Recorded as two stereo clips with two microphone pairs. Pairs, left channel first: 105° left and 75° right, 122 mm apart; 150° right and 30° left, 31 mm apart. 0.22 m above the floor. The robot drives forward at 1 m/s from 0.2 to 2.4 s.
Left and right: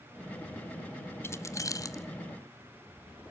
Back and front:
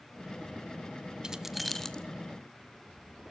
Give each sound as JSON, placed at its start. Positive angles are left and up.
{"t": 1.2, "sound": "keys jangling", "azimuth_deg": 65, "distance_m": 0.8}